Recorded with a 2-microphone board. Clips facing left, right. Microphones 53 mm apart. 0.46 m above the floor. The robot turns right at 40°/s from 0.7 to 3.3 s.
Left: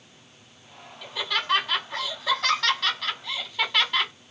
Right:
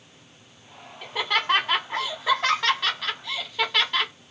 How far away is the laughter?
About 1.6 m.